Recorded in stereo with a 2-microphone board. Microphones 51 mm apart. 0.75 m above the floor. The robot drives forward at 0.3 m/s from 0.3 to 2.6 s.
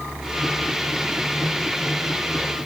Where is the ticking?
No ticking in this recording.